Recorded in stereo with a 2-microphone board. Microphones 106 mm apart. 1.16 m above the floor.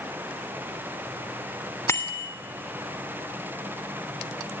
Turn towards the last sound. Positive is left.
turn(degrees=30)  # may be behind; listen again after turning